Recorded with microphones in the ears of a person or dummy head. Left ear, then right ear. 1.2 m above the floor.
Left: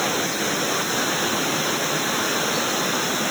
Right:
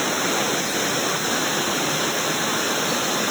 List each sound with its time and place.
Only background noise.